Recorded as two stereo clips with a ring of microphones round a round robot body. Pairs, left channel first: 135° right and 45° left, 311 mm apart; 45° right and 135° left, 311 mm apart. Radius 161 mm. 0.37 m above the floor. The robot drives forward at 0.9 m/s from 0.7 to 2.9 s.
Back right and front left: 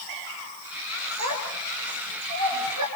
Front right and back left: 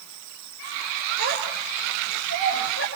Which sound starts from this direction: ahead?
A child speaking, at 1.2 s.